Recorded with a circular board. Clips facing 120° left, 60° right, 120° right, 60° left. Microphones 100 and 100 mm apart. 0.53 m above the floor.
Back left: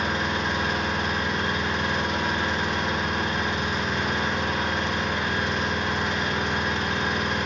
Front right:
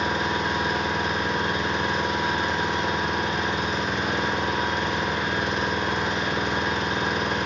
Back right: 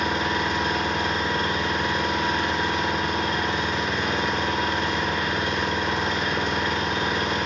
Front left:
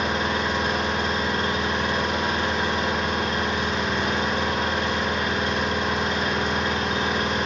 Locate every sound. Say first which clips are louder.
0.0 s an engine running: front right 1 dB, even; 5° left, 0.9 m